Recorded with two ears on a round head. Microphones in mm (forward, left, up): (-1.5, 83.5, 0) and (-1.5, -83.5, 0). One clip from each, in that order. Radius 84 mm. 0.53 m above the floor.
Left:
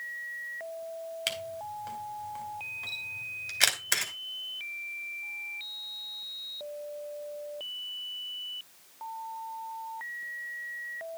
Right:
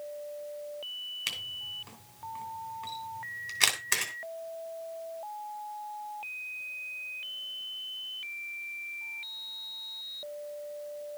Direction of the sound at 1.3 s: 15° left (ahead or behind).